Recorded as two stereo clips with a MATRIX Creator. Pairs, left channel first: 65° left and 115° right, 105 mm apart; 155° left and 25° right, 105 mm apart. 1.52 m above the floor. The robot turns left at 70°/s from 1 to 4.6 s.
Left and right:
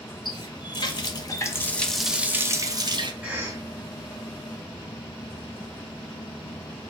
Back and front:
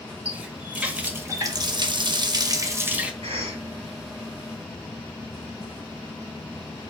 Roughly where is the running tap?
Ahead left.